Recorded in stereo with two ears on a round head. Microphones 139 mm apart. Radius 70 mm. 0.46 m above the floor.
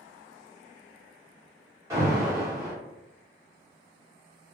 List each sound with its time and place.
1.9 s an alarm: 15° right (ahead or behind), 1.2 m